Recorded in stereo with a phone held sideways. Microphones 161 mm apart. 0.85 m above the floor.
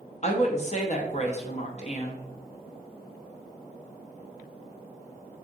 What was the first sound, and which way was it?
A woman speaking, 45° left (ahead or behind).